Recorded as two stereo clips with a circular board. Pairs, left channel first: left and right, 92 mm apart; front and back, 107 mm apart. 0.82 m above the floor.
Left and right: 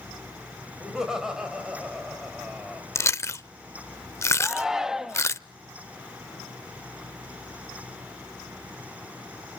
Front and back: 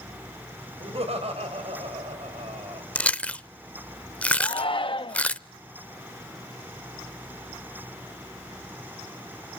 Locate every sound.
0.8 s laughter: 175° right, 5 m
3.0 s chewing: 65° left, 0.5 m
4.4 s a shout: 10° right, 1.1 m